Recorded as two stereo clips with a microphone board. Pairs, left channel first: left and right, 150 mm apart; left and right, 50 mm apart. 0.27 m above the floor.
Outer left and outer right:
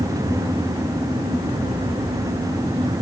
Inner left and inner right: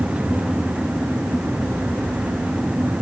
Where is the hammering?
No hammering in this recording.